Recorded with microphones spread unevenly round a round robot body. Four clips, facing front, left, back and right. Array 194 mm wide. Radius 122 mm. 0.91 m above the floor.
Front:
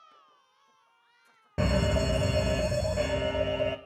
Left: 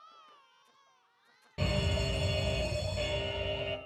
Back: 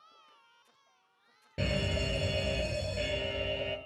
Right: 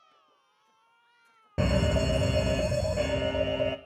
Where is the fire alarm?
35° right, 2.5 m.